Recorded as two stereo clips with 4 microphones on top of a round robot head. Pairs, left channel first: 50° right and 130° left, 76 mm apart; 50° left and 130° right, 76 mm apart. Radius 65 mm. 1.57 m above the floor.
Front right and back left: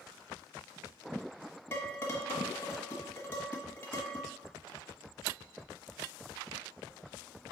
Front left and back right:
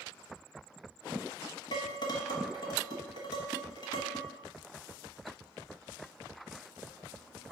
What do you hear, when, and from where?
1.7 s dishes clattering: 15° left, 1.2 m